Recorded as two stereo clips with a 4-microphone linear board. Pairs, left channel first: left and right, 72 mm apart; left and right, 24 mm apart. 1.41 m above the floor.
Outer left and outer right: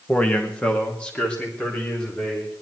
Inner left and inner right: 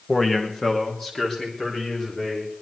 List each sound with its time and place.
0.1 s a man speaking: 15° left (ahead or behind), 1.4 m; by 2.5 s 10° left (ahead or behind), 5 m